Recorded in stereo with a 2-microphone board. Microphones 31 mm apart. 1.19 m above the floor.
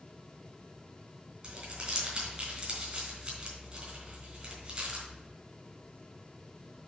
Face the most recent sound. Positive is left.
turn(degrees=-30)  # may be behind; listen again after turning